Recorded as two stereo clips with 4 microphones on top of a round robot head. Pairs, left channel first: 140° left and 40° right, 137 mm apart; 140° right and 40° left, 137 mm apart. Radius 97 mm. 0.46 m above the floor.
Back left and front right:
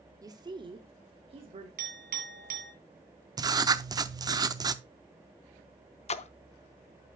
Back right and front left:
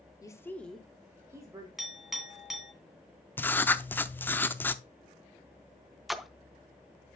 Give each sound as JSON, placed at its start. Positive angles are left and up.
{"t": 0.2, "sound": "a woman speaking", "azimuth_deg": -90, "distance_m": 1.2}
{"t": 1.8, "sound": "a clink", "azimuth_deg": -50, "distance_m": 2.5}
{"t": 3.4, "sound": "writing", "azimuth_deg": -75, "distance_m": 0.6}
{"t": 6.1, "sound": "a splash", "azimuth_deg": 130, "distance_m": 0.6}